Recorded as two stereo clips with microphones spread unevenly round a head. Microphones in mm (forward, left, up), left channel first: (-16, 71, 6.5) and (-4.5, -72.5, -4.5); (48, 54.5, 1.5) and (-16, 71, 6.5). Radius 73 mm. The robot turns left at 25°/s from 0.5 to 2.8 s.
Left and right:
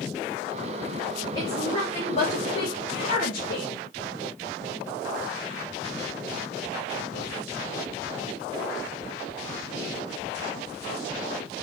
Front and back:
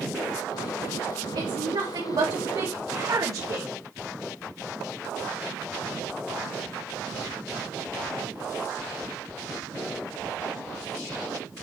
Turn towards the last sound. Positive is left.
turn(degrees=125)